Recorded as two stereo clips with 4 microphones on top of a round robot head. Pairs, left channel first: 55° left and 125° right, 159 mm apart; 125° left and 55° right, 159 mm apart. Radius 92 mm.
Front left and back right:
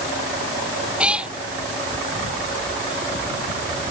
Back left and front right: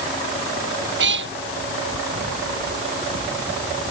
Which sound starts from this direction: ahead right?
A cat meowing, at 1.0 s.